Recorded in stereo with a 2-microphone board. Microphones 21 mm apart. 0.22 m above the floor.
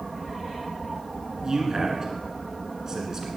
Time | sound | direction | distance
1.4 | a man speaking | 30° right (ahead or behind) | 2 m